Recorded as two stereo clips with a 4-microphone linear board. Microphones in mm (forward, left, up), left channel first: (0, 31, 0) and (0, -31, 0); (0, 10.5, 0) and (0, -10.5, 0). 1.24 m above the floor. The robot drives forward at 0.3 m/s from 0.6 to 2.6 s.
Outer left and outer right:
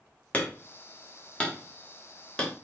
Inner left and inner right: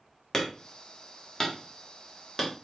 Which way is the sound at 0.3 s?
25° left (ahead or behind).